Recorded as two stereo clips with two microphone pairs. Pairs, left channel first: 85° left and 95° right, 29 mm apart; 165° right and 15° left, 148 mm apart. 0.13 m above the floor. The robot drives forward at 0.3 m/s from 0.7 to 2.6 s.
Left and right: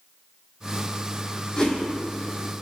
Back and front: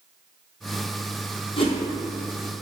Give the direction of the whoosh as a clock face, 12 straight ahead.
7 o'clock.